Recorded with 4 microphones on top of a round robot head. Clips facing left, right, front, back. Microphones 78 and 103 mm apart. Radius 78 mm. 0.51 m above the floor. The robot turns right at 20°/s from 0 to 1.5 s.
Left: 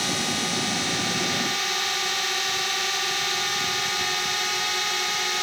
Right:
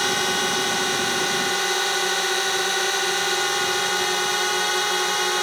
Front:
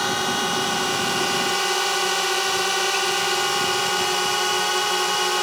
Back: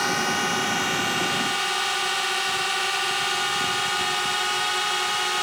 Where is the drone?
80° right; by 5.4 s 50° right.